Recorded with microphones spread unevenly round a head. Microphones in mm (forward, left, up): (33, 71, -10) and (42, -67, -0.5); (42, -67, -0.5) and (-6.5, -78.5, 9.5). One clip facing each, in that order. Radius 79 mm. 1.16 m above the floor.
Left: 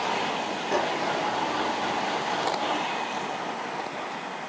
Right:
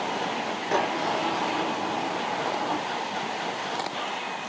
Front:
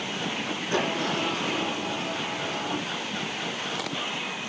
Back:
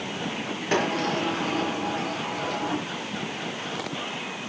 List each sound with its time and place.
0.7 s a sliding door: 160° right, 8 m